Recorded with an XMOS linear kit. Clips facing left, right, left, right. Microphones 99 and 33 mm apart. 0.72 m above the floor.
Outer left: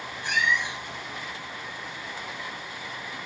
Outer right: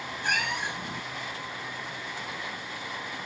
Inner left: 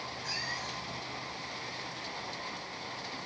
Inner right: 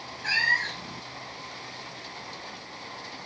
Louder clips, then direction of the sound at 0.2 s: Outer left 4 dB, inner right 15 dB; 55° right (ahead or behind).